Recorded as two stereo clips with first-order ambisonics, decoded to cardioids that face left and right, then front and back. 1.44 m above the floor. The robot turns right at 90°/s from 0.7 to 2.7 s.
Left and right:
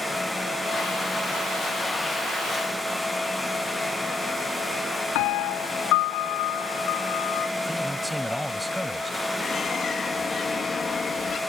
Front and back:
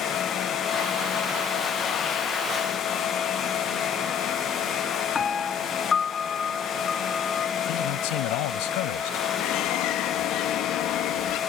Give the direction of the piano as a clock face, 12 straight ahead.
10 o'clock.